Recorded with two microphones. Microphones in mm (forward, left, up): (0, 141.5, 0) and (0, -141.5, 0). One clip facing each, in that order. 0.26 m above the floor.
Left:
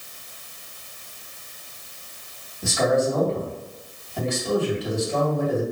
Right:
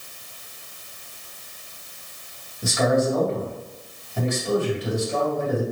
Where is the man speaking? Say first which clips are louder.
Even; 20° right (ahead or behind), 1.6 m.